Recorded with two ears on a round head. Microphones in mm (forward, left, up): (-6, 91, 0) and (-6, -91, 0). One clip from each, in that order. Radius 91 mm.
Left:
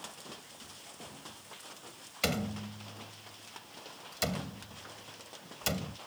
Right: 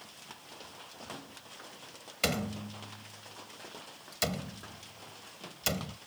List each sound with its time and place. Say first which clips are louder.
2.2 s a door slam: right 1 dB; 10° right (ahead or behind)